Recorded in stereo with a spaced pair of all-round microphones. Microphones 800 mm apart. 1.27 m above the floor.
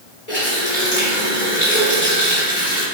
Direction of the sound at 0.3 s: 50° left (ahead or behind).